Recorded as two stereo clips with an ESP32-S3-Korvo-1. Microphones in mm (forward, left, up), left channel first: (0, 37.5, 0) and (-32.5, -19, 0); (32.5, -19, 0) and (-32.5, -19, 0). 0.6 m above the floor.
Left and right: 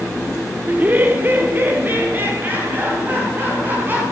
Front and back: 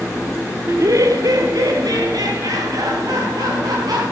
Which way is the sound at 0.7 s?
175° right.